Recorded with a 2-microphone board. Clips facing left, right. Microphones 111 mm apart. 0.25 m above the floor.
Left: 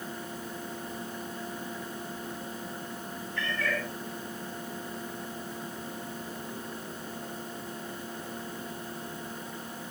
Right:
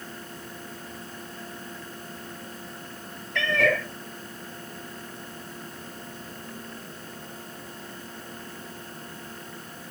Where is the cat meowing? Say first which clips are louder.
Right 9 dB; 85° right, 2.5 m.